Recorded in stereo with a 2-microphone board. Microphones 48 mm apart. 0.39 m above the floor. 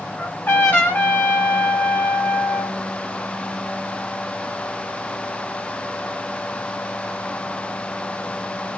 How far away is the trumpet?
About 1.2 m.